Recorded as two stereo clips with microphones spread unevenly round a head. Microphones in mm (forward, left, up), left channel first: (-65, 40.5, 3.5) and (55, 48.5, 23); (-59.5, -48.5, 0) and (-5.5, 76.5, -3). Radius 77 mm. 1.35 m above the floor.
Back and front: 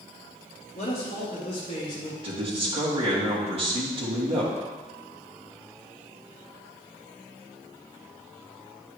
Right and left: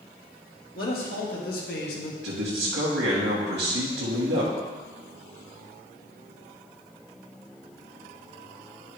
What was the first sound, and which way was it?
A man speaking, 130° right.